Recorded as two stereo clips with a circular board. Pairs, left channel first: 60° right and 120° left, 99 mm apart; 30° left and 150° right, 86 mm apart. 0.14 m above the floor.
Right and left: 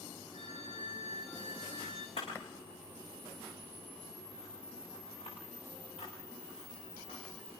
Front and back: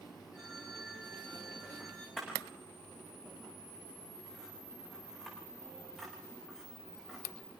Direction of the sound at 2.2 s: 55° right.